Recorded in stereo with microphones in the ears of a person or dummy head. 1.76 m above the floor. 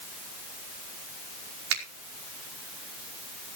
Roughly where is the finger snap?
Right.